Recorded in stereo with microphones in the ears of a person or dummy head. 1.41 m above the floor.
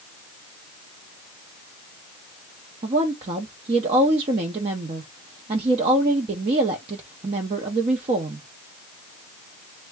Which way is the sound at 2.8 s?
35° right (ahead or behind).